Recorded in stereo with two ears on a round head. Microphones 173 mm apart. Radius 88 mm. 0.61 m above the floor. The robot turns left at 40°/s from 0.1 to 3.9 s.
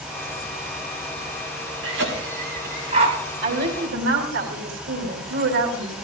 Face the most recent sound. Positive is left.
turn(degrees=-70)  # may be behind; listen again after turning